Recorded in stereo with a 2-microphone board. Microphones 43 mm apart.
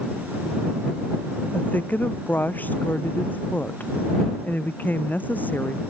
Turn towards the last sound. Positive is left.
turn(degrees=45)  # may be behind; listen again after turning